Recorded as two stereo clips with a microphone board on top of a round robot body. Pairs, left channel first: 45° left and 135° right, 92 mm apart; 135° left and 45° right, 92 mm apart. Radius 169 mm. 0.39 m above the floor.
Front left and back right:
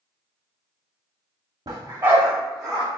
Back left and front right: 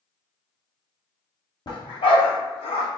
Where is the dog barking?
175° left, 0.8 m; by 2.9 s 130° left, 1.4 m.